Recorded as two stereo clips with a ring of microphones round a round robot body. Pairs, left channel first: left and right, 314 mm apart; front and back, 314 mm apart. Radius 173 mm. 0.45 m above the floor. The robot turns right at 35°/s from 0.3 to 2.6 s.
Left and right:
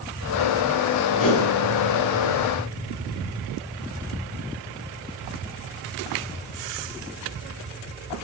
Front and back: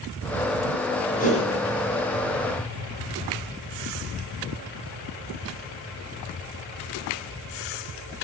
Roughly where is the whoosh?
Ahead left.